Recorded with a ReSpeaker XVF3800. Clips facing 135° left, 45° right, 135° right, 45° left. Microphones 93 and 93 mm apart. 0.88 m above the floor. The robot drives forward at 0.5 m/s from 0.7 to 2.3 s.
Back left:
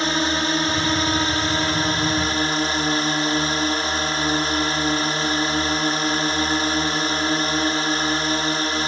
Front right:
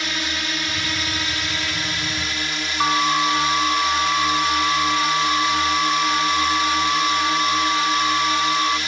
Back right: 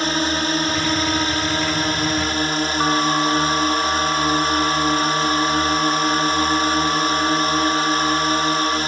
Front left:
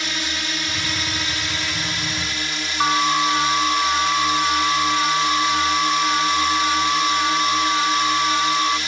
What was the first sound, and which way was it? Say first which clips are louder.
A drone: back left 6 dB, back right 8 dB; 175° right.